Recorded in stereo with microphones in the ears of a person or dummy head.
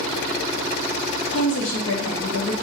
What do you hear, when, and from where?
1.3 s a woman speaking: 85° left, 0.6 m